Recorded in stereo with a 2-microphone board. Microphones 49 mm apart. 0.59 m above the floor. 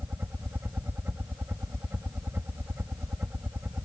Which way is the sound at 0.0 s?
45° right (ahead or behind).